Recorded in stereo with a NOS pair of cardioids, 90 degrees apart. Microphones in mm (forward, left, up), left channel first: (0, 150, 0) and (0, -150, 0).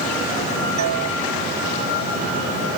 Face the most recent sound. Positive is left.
turn(degrees=-70)